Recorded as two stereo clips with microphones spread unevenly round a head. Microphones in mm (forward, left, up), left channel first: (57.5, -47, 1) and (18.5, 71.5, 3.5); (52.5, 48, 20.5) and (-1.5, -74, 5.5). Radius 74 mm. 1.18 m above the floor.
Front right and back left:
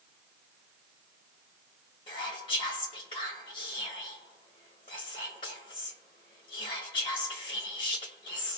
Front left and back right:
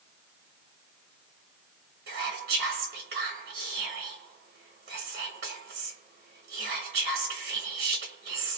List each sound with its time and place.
2.1 s whispering: 130° right, 0.8 m